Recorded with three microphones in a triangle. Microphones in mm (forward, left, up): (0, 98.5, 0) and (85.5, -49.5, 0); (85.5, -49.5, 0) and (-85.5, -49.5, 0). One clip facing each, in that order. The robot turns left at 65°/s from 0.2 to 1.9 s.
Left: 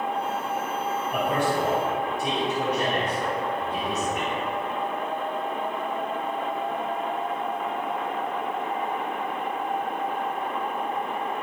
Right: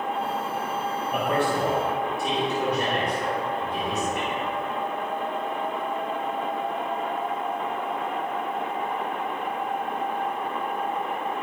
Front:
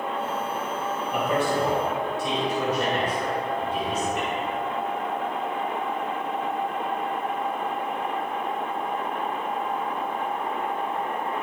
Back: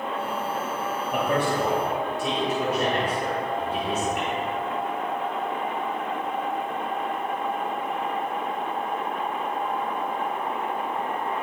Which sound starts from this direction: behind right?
A man speaking, at 1.1 s.